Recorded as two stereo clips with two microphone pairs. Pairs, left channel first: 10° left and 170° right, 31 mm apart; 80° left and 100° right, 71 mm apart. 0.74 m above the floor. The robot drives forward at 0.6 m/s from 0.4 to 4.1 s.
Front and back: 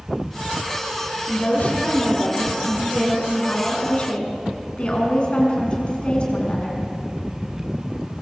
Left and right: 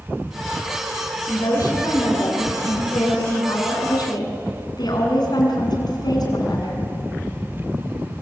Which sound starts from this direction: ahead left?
A woman speaking, at 1.3 s.